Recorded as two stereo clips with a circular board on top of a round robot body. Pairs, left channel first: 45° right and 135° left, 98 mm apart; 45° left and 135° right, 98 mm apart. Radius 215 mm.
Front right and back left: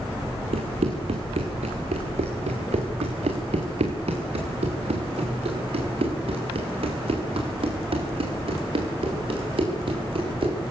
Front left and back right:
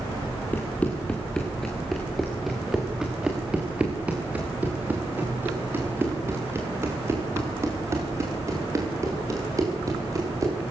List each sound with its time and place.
0.5 s running footsteps: 120° left, 4 m; by 10.6 s 170° left, 10 m